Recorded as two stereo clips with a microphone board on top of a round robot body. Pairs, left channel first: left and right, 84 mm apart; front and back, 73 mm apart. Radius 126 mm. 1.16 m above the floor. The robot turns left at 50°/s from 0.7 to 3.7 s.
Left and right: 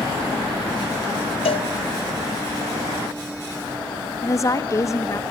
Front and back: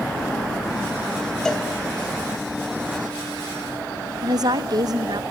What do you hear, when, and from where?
1.4 s a cowbell: 85° left, 1.1 m; by 1.7 s 70° left, 1.1 m
4.2 s a woman speaking: 145° left, 1.6 m